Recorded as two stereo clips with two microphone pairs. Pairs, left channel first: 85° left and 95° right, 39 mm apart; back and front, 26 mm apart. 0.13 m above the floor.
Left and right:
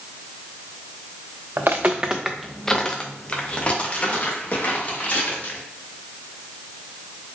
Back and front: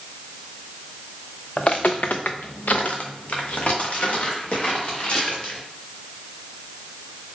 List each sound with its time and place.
1.6 s footsteps: 120° right, 0.7 m; by 5.6 s 135° left, 3.5 m